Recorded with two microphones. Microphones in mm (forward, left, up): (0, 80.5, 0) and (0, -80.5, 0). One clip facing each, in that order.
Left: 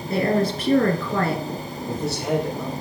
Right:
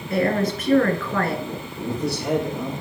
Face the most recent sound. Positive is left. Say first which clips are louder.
# right 3 dB
turn(degrees=25)  # may be behind; listen again after turning